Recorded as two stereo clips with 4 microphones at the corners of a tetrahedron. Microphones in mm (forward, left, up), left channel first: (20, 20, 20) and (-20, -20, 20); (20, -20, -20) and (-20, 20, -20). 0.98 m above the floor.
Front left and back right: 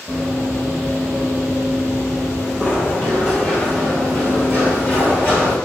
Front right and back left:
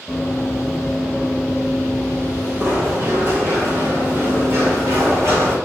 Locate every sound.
0.1 s running footsteps: 85° right, 1.0 m; by 5.5 s 110° left, 2.5 m